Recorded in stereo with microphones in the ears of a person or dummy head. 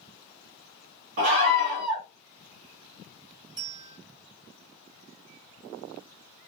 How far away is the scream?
About 0.8 m.